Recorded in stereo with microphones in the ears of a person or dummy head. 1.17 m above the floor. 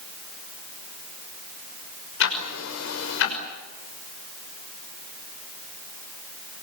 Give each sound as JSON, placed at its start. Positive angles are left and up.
{"t": 2.2, "sound": "ticking", "side_deg": 60, "distance_m": 5.5}